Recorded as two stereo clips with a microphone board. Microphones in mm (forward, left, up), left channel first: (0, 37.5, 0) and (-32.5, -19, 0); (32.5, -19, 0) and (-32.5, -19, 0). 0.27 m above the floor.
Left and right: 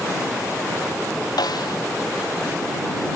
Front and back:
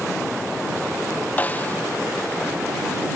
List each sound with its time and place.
1.4 s a snare drum: 65° left